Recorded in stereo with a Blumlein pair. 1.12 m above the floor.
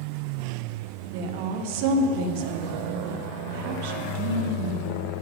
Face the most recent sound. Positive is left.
turn(degrees=-50)